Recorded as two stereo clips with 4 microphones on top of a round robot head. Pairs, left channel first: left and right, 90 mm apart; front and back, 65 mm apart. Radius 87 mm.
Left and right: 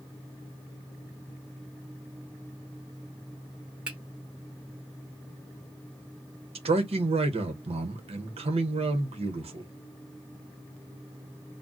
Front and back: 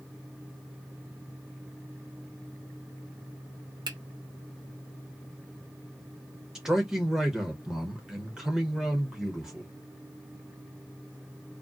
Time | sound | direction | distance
3.9 | a finger snap | 170° right | 1.0 m
6.5 | a man speaking | 95° right | 0.8 m